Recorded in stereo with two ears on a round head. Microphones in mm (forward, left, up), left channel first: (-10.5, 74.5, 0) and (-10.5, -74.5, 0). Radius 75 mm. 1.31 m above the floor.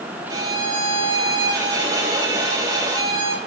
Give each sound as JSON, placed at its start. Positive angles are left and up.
{"t": 0.3, "sound": "a violin", "side_deg": -20, "distance_m": 4.0}